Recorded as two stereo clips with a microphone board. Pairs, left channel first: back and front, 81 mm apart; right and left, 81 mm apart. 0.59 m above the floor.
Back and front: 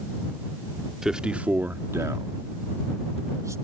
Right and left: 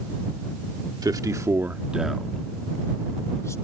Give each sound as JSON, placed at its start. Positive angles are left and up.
{"t": 1.0, "sound": "a man speaking", "azimuth_deg": 85}